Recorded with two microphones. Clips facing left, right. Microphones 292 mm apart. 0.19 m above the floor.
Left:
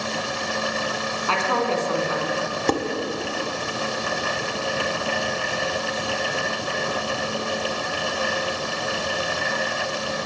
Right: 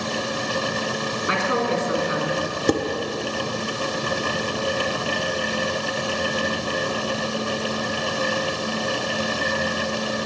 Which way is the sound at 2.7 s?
15° right (ahead or behind).